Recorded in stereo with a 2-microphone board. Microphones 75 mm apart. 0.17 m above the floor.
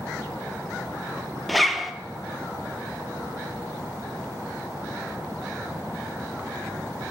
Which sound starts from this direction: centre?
A zipper, at 1.5 s.